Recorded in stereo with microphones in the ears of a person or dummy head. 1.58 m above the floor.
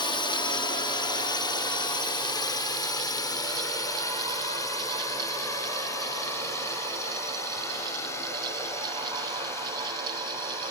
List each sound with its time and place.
0.0 s a drone: 25° left (ahead or behind); by 10.7 s 15° left (ahead or behind)